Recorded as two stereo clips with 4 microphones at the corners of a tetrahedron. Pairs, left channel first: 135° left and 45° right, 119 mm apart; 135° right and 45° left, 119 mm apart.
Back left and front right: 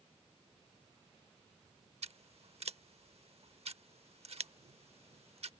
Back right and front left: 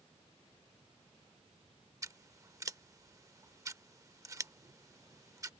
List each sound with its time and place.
2.0 s scissors: 15° right